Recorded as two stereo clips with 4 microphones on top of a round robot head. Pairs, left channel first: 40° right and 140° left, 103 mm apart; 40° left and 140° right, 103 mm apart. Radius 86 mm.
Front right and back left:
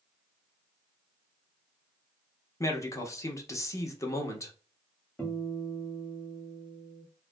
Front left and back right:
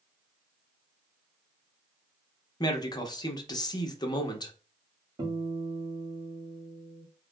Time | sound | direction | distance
2.6 | a man speaking | 10° left | 0.8 m
5.2 | a guitar | 110° right | 1.4 m